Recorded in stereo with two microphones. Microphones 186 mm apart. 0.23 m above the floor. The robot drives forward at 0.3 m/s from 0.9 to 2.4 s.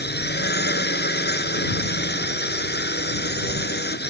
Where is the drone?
65° left (ahead or behind).